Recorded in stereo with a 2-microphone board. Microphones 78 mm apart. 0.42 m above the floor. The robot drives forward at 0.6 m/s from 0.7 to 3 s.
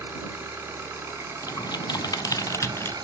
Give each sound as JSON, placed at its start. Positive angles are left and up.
{"t": 0.0, "sound": "an engine running", "side_deg": -25, "distance_m": 2.5}
{"t": 1.4, "sound": "typing on a keyboard", "side_deg": 50, "distance_m": 0.5}